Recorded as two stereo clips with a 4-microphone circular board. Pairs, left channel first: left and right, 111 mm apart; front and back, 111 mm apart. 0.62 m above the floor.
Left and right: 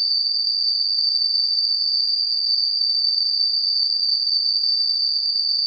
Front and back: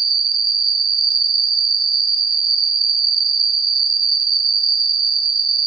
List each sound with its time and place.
0.0 s an insect: 140° right, 0.7 m